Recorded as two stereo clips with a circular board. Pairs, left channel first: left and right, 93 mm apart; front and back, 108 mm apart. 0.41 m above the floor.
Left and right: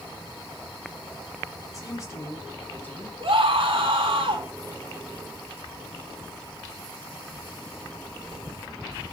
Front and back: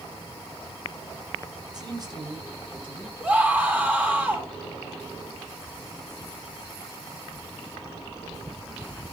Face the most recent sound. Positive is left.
turn(degrees=-100)